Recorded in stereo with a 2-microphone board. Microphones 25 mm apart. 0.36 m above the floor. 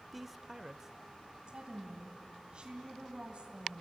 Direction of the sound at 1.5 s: 40° right (ahead or behind).